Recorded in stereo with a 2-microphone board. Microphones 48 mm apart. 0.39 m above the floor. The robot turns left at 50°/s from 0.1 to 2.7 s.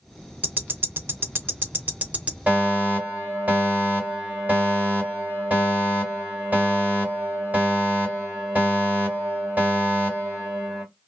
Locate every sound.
0.4 s ticking: 35° right (ahead or behind), 0.6 m; by 2.4 s 30° right (ahead or behind), 0.6 m
2.5 s a fire alarm: 35° right (ahead or behind), 2.5 m